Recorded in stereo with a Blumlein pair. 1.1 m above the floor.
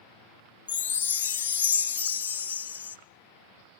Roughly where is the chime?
Ahead left.